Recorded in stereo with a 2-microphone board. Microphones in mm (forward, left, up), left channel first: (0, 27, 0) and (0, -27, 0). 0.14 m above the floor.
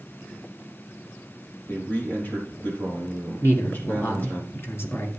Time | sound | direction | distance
1.7 | a man speaking | 40° left (ahead or behind) | 4 m
3.4 | a man speaking | 50° left (ahead or behind) | 1.9 m